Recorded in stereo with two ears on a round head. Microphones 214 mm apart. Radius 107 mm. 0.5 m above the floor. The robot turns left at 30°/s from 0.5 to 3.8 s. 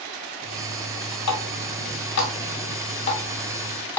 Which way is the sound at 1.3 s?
80° left.